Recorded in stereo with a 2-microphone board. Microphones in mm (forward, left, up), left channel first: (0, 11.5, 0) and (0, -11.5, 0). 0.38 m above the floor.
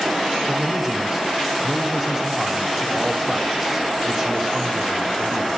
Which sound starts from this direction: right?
A man speaking, at 0.5 s.